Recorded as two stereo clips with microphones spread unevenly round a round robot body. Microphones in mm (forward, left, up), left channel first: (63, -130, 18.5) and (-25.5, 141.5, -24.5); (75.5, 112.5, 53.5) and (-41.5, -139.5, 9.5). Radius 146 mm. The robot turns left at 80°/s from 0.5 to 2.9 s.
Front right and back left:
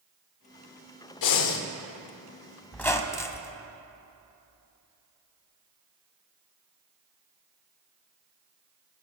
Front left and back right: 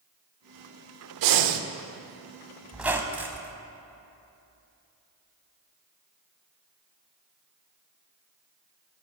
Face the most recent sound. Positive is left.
turn(degrees=-20)